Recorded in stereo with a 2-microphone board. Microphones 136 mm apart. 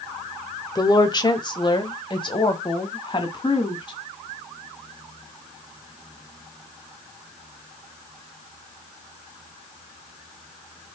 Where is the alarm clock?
No alarm clock in this recording.